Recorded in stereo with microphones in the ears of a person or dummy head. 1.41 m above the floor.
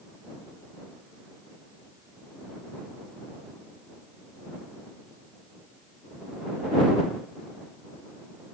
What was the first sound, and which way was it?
Only background noise.